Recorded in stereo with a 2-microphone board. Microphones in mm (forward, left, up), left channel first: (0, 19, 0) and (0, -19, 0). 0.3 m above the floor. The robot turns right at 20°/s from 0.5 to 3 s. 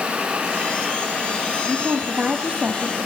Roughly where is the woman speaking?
Right.